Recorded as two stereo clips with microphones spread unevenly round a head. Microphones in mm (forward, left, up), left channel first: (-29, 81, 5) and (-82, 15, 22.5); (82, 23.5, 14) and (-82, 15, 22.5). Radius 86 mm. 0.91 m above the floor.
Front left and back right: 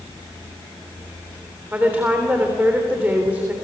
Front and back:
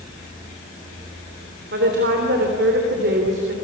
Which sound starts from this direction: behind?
A woman speaking, at 1.7 s.